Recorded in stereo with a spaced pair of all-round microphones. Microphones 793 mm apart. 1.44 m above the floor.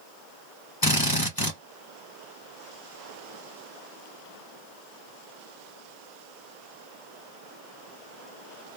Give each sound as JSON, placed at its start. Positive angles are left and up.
{"t": 0.8, "sound": "a drill", "side_deg": 25, "distance_m": 1.5}